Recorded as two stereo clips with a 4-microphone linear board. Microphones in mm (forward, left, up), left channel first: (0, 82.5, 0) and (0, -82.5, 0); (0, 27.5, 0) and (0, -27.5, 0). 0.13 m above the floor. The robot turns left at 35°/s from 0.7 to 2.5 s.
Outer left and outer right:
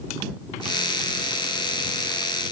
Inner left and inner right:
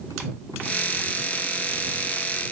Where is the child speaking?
No child speaking in this recording.